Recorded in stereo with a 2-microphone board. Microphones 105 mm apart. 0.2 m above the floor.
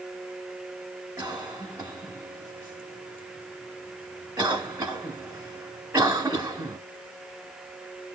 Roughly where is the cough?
Right.